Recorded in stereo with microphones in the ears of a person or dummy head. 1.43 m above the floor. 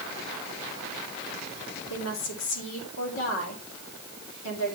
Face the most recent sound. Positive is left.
turn(degrees=65)  # may be behind; listen again after turning